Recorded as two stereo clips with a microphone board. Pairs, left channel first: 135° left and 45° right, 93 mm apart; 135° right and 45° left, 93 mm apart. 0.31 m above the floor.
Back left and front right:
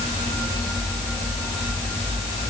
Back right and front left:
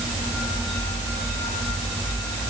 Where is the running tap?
No running tap in this recording.